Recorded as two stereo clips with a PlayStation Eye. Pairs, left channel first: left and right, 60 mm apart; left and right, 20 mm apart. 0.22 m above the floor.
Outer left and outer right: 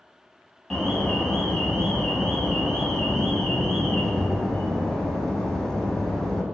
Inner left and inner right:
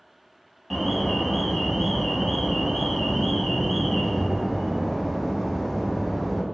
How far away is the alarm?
About 0.9 m.